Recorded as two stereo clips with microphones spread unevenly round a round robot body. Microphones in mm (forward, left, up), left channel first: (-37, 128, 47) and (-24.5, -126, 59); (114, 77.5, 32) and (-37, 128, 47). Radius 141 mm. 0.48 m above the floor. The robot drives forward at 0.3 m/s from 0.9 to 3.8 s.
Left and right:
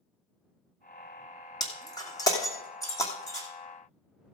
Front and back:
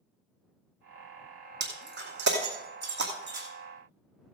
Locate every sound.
1.6 s breaking glass: 170° left, 2 m